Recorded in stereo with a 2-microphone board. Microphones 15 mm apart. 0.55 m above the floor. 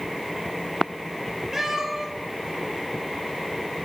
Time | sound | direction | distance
1.5 | a cat meowing | 30° right (ahead or behind) | 1.7 m